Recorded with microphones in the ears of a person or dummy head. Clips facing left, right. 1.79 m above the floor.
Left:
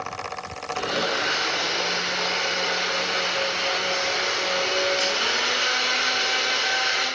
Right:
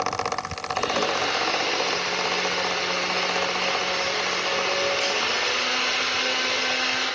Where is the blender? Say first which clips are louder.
Right 2 dB; 10° left (ahead or behind), 9 m.